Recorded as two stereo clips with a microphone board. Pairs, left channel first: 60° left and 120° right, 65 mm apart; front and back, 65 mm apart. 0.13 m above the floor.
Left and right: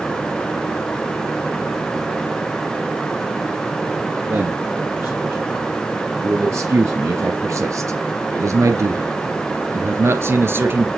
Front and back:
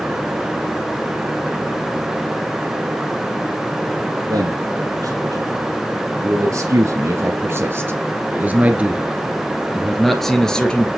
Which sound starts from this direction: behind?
A man speaking, at 4.3 s.